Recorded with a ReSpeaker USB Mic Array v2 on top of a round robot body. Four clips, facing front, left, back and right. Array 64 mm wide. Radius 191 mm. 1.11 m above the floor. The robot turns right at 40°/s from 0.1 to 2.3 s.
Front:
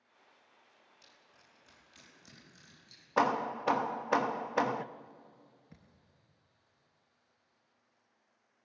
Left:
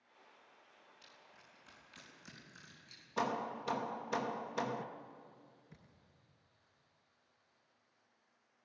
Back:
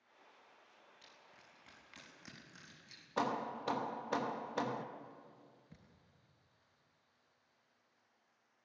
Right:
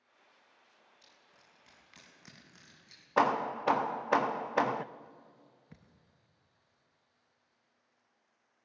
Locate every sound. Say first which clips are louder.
1.0 s crushing: left 2 dB, back 2 dB; 170° left, 4.5 m; by 3.1 s 135° right, 4.5 m
3.2 s hammering: right 9 dB, front 8 dB; 60° right, 0.6 m
5.7 s a thud: right 3 dB, front 2 dB; 80° right, 0.6 m